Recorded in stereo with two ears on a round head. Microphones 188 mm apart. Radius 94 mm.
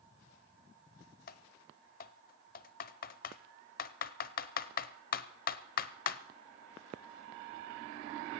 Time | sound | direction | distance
1.3 | typing on a keyboard | 45° left (ahead or behind) | 0.6 m